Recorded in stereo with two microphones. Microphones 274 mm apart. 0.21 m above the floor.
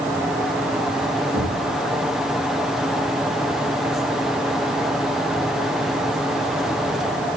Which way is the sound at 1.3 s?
35° right (ahead or behind).